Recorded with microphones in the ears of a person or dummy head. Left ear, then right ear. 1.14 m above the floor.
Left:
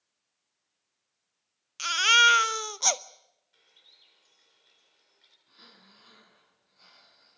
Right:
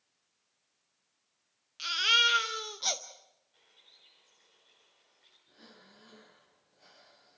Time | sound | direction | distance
1.8 | a baby crying | 40° left (ahead or behind) | 0.6 m
3.5 | a bird | 65° left (ahead or behind) | 10 m
5.5 | breathing | 55° left (ahead or behind) | 6.5 m